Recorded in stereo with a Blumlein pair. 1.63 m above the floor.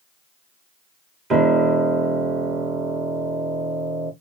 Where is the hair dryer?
No hair dryer in this recording.